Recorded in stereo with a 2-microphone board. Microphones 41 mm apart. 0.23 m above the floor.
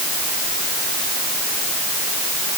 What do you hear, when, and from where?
Only background noise.